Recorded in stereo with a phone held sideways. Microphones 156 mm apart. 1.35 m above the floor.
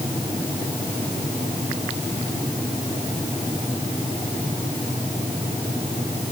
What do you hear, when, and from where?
Only background noise.